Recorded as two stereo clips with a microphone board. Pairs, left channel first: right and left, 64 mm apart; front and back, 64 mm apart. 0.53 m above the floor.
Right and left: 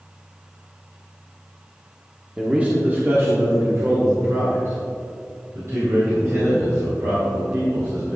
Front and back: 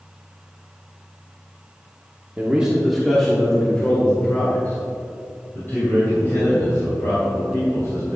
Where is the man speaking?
140° left, 1.3 m; by 8.2 s 50° left, 5.5 m.